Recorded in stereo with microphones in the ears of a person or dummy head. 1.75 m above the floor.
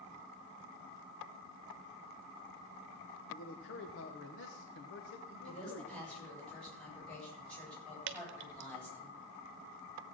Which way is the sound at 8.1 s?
60° right (ahead or behind).